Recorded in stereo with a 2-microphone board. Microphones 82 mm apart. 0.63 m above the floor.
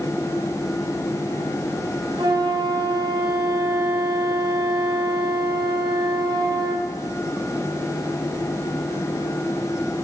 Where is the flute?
60° right (ahead or behind), 2.5 m.